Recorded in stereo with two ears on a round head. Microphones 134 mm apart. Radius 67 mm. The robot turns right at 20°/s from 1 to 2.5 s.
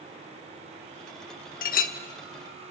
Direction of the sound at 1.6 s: 60° left (ahead or behind).